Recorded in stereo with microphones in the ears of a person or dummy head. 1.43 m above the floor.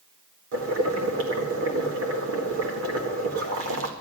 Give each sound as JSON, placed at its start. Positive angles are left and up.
{"t": 0.5, "sound": "boiling", "side_deg": -75, "distance_m": 1.9}